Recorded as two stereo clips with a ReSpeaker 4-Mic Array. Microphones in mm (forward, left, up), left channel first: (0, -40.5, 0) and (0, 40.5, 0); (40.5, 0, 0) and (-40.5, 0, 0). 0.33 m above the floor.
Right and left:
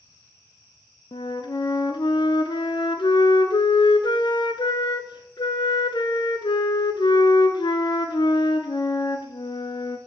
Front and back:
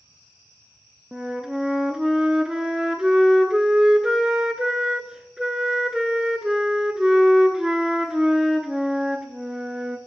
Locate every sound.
1.1 s a flute: 100° right, 0.7 m